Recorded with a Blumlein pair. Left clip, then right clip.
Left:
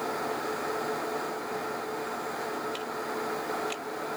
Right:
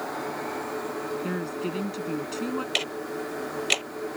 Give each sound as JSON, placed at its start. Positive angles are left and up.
{"t": 1.2, "sound": "a woman speaking", "azimuth_deg": -45}
{"t": 2.8, "sound": "ticking", "azimuth_deg": -50}